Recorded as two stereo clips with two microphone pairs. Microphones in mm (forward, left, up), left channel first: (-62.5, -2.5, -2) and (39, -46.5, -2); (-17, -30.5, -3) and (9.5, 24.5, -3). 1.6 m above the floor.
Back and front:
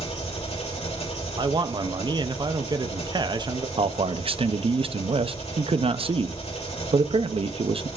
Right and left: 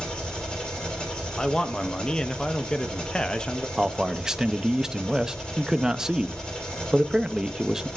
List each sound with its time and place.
0.0 s an engine running: 170° left, 2.5 m
1.4 s a man speaking: 40° right, 0.5 m
3.8 s a man speaking: 15° right, 0.5 m